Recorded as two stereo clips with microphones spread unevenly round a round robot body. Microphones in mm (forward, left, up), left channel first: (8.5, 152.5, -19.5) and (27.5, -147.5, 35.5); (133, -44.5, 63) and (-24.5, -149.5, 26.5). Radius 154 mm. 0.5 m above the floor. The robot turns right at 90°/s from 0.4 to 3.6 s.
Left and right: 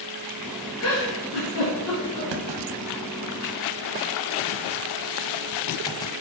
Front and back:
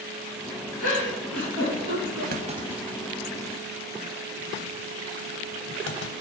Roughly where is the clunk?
Right.